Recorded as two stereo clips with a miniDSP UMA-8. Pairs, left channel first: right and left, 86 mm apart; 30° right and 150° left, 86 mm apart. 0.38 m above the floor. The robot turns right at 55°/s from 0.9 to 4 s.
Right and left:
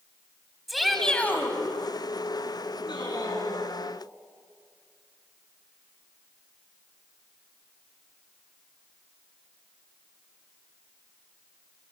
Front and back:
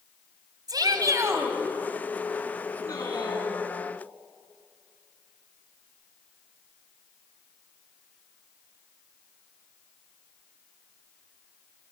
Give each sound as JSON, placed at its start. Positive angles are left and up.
{"t": 0.7, "sound": "a shout", "azimuth_deg": 180, "distance_m": 2.5}
{"t": 2.8, "sound": "a man speaking", "azimuth_deg": -75, "distance_m": 5.0}